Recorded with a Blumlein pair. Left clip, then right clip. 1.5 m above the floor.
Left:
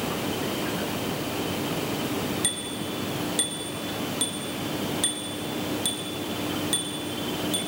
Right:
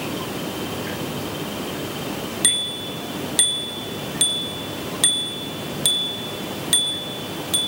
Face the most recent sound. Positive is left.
turn(degrees=-70)